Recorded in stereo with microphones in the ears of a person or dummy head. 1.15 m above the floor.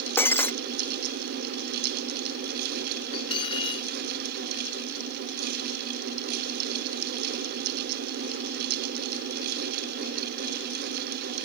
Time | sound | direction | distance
0.2 | breaking glass | 15° left (ahead or behind) | ?
3.1 | cutlery clinking | 30° left (ahead or behind) | ?